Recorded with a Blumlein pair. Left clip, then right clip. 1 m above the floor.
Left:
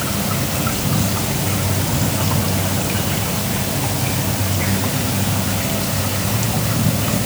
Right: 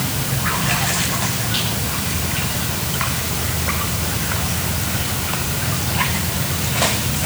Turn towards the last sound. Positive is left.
No sound to turn to.